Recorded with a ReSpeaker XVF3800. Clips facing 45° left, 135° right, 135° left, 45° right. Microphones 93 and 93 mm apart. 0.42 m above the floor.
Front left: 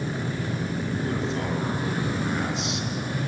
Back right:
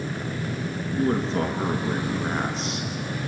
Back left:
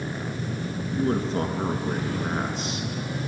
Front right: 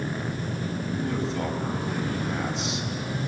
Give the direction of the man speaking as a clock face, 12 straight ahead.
6 o'clock.